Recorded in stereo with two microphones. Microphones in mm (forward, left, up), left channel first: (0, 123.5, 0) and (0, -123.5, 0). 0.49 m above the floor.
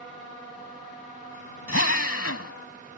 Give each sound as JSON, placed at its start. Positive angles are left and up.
{"t": 1.7, "sound": "a drill", "side_deg": 65}